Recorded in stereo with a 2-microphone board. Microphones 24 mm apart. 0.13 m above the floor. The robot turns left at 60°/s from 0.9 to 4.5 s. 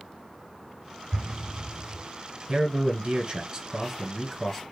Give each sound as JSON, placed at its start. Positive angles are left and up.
{"t": 1.1, "sound": "an explosion", "side_deg": -40, "distance_m": 3.5}
{"t": 2.5, "sound": "a man speaking", "azimuth_deg": -60, "distance_m": 1.3}